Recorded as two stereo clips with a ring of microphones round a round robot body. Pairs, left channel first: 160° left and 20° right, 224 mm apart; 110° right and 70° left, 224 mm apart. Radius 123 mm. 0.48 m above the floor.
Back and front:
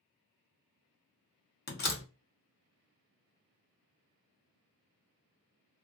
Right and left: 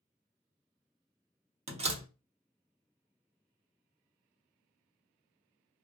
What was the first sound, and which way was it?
A door slam, 125° left.